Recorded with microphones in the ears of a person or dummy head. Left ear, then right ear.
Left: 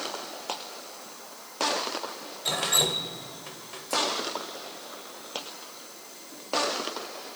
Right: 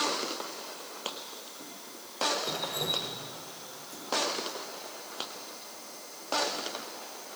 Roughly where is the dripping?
Left.